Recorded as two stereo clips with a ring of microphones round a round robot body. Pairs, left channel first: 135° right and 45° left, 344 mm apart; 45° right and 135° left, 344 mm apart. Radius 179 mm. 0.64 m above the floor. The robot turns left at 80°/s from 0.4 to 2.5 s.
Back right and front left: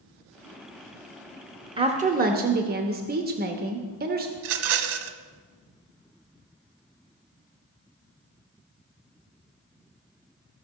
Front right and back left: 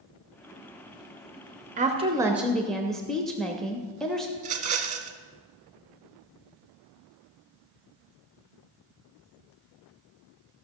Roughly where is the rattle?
Ahead left.